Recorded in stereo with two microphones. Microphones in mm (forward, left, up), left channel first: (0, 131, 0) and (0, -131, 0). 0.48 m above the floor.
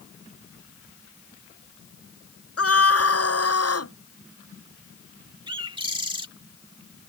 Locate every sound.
2.6 s a scream: 60° left (ahead or behind); by 3.9 s 70° left (ahead or behind)
5.5 s a bird: 20° right (ahead or behind)